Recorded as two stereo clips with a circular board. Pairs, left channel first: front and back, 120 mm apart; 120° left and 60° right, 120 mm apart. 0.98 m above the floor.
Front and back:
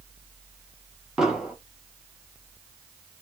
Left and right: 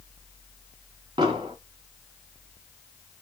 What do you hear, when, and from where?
1.2 s an explosion: 100° right, 0.8 m